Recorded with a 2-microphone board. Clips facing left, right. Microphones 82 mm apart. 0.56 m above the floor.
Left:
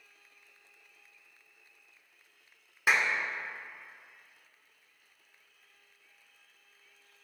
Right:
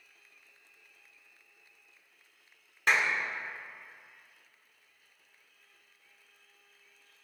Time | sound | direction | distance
2.9 | a clap | 10° left (ahead or behind) | 0.8 m